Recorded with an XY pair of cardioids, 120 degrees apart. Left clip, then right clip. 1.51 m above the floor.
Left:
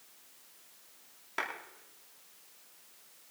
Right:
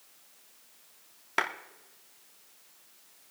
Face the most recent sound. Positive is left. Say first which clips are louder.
# right 7 dB
turn(degrees=-55)